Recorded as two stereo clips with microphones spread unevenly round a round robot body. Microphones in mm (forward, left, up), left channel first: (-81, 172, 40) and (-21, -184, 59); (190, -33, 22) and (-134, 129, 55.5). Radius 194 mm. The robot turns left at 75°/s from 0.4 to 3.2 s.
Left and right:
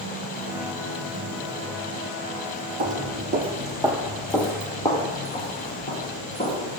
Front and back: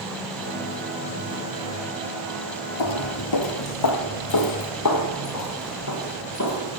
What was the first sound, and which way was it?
Footsteps, 25° right.